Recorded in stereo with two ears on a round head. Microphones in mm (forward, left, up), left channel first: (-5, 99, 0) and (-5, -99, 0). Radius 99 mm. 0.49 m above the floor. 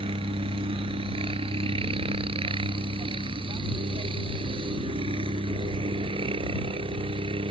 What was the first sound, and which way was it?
A helicopter, 25° right (ahead or behind).